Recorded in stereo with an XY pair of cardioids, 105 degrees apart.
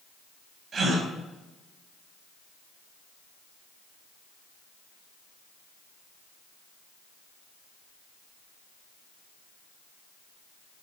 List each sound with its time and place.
0.7 s a gasp: 50° right, 4 m